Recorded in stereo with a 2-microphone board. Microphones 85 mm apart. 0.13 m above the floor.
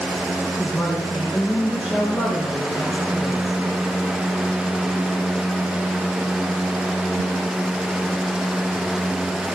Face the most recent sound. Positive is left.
turn(degrees=-5)  # may be behind; listen again after turning